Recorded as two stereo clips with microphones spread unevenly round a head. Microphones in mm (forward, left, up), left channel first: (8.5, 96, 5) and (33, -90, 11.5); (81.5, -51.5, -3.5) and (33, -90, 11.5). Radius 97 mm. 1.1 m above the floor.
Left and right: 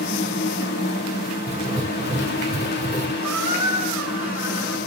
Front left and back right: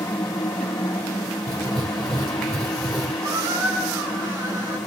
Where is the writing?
140° right, 1.8 m.